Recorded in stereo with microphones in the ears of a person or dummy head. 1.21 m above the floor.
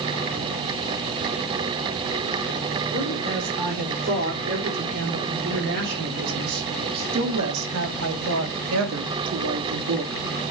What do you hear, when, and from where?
2.9 s a woman speaking: 45° right (ahead or behind), 3.5 m; by 10.2 s 60° right (ahead or behind), 2 m